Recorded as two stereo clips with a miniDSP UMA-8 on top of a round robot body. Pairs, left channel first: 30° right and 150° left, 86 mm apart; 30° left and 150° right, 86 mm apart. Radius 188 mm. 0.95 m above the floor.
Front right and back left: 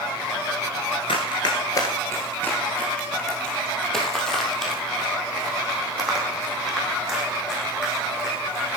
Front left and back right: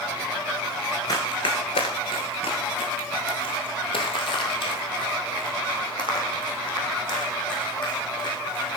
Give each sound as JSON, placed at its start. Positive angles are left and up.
{"t": 1.1, "sound": "running footsteps", "azimuth_deg": -10, "distance_m": 1.1}